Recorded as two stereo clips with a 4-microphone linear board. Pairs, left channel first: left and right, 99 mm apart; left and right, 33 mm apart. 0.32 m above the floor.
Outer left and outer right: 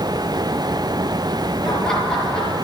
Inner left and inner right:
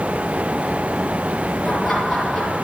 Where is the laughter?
5° left (ahead or behind), 5.5 m.